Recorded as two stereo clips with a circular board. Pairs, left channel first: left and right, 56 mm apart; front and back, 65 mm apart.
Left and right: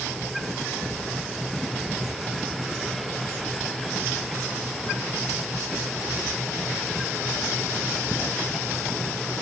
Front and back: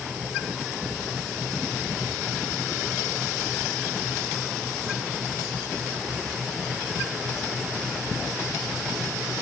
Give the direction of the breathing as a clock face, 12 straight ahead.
I don't hear breathing.